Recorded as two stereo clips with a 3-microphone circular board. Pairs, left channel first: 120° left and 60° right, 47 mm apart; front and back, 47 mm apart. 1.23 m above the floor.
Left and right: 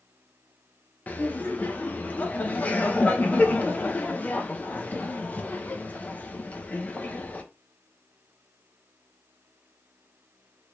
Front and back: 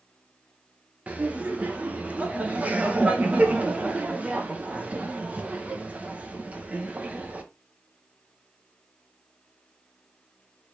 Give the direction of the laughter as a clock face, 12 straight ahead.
7 o'clock.